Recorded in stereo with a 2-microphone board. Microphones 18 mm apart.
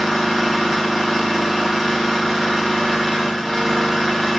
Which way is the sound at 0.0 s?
15° right (ahead or behind).